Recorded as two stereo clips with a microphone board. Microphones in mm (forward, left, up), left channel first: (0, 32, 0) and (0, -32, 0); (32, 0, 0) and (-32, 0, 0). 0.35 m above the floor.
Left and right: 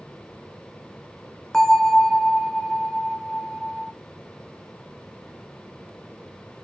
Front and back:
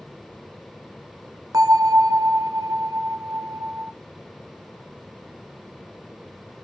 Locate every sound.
1.5 s a bell: 175° left, 0.7 m